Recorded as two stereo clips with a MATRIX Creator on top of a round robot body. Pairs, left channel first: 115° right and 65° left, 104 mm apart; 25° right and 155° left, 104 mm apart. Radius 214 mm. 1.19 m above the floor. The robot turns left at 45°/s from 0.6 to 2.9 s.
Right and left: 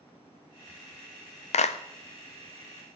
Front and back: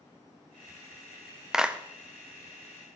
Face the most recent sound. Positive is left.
turn(degrees=180)